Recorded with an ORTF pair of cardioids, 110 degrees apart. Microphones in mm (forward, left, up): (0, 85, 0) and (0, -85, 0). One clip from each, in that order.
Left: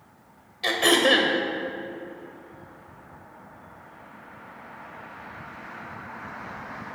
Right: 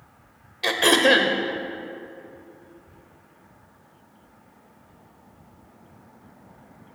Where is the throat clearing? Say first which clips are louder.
Right 2 dB; 20° right, 0.9 m.